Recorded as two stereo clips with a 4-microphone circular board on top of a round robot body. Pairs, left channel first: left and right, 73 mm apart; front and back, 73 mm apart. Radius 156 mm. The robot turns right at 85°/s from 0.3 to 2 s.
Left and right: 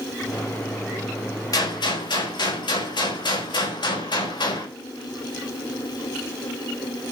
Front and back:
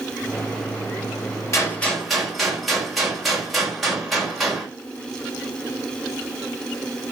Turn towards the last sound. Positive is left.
turn(degrees=90)